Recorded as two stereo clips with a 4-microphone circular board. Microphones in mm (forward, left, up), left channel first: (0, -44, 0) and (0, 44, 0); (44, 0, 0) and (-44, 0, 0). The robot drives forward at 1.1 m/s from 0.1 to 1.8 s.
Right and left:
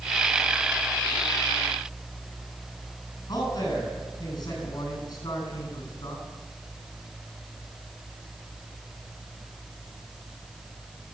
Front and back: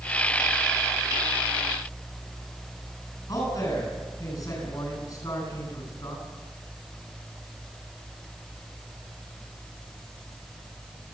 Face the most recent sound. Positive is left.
turn(degrees=-45)